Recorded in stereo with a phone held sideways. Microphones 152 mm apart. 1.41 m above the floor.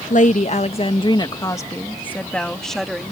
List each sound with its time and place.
0.1 s a woman speaking: 60° left (ahead or behind); by 3.1 s centre (ahead or behind)